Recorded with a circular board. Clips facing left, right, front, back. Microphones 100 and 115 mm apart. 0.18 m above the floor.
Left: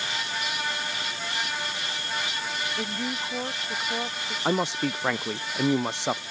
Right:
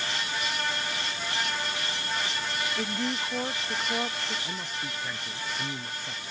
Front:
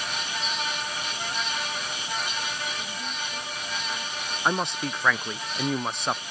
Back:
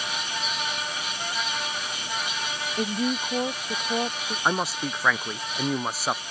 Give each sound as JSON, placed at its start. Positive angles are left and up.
{"t": 2.8, "sound": "a woman speaking", "azimuth_deg": 180}
{"t": 4.5, "sound": "a man speaking", "azimuth_deg": 95}